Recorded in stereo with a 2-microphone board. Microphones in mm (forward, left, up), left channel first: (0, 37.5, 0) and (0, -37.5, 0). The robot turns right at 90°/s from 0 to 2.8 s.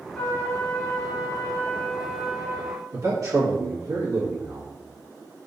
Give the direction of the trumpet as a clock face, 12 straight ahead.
12 o'clock.